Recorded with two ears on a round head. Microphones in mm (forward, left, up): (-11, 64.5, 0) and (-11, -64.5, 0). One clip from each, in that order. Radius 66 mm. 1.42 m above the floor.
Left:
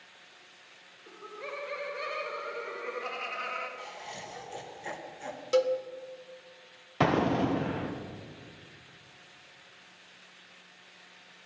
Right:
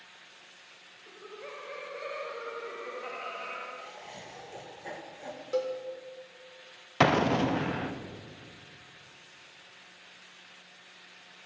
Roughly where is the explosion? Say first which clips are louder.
Right 2 dB; right.